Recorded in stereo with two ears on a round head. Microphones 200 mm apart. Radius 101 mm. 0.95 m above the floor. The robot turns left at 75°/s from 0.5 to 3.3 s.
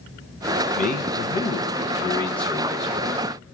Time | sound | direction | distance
0.8 | a man speaking | 130° left | 0.6 m